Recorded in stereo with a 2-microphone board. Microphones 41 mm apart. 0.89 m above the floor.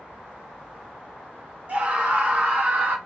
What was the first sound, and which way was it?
A scream, 35° right (ahead or behind).